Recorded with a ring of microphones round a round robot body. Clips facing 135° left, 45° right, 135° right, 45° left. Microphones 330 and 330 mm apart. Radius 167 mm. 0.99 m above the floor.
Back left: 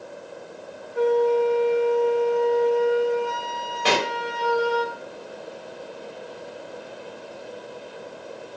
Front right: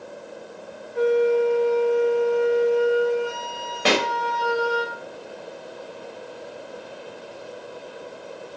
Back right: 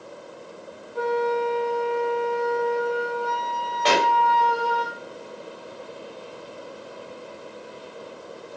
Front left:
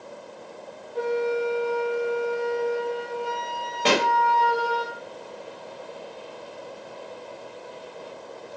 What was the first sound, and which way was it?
A flute, 25° right.